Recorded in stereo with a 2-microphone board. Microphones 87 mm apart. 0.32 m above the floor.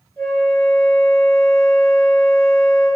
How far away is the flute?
About 5 m.